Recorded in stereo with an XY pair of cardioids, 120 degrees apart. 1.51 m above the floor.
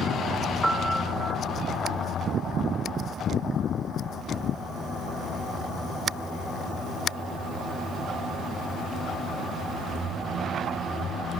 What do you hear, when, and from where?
0.6 s a piano: 10° right, 0.6 m